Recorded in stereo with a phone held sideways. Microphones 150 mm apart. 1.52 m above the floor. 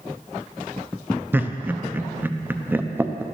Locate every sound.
1.3 s laughter: 15° right (ahead or behind), 0.7 m